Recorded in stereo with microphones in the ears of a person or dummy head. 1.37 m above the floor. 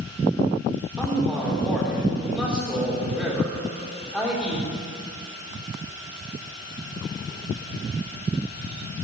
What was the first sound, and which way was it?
A man speaking, 5° right (ahead or behind).